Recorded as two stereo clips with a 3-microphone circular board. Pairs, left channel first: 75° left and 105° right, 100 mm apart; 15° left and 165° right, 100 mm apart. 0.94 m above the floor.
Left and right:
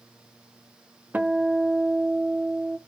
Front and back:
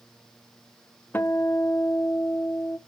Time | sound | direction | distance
1.1 | a guitar | 40° right | 0.5 m